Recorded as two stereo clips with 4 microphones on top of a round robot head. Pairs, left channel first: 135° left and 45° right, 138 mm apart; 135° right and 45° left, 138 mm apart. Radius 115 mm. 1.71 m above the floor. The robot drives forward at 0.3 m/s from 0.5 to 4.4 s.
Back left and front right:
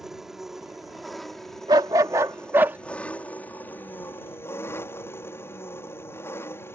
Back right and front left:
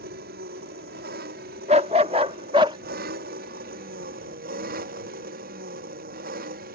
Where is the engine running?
40° left; by 6.8 s 60° left.